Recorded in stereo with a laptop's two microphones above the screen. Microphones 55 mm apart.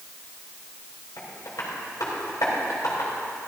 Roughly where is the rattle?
No rattle in this recording.